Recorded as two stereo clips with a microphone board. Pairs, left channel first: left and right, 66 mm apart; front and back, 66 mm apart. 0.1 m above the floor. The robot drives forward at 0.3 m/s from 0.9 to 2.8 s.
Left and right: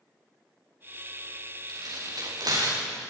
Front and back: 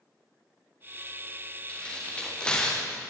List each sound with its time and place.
1.7 s tearing paper: 75° right, 7.5 m